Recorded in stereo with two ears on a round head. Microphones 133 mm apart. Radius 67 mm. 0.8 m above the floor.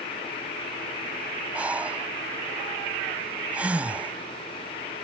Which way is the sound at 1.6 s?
10° right (ahead or behind).